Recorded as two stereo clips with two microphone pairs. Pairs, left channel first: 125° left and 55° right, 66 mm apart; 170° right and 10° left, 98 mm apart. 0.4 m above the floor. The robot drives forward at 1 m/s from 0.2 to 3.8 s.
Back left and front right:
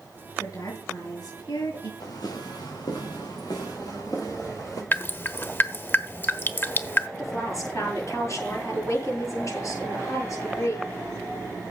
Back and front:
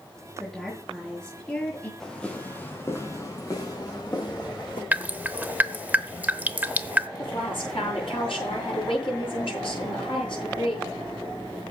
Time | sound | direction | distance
0.4 | a woman speaking | 95° left | 5 m
2.0 | footsteps | 105° left | 4.5 m
4.9 | dripping | 80° left | 0.9 m
7.2 | a woman speaking | 165° left | 8 m